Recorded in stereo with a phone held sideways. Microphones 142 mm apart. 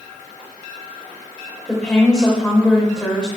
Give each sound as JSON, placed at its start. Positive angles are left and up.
{"t": 1.7, "sound": "a woman speaking", "side_deg": 5, "distance_m": 3.5}